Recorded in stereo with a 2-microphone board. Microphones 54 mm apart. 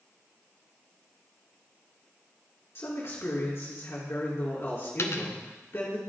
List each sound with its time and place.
2.8 s a man speaking: 50° left (ahead or behind), 2.5 m
5.0 s a dropped coin: 60° left (ahead or behind), 0.7 m